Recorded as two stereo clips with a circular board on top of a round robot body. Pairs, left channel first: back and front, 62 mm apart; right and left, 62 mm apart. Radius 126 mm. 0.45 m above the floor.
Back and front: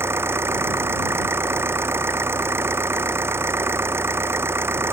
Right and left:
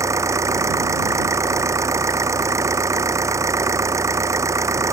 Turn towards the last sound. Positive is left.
turn(degrees=50)